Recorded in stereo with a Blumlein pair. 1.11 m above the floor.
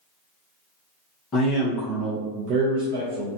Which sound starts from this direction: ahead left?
A man speaking, at 1.3 s.